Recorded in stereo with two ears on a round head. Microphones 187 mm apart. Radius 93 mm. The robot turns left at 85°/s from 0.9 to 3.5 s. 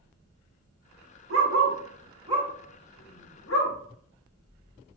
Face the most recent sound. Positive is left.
turn(degrees=70)  # may be behind; listen again after turning